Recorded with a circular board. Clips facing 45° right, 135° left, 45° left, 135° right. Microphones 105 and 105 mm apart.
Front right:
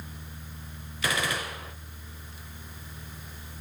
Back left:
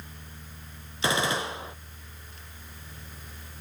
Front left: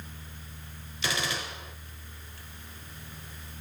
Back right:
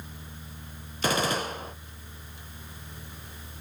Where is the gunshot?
165° right, 0.6 m.